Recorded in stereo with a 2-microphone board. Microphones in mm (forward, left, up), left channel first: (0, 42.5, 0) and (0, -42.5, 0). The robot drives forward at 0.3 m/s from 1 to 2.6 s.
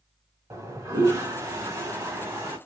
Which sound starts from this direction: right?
A toilet flushing, at 0.5 s.